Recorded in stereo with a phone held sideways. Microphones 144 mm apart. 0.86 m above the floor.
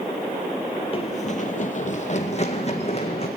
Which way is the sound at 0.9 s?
35° left (ahead or behind).